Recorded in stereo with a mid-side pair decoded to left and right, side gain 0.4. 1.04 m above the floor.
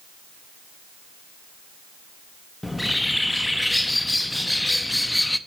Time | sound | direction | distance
2.6 | a bird | 10° left | 0.6 m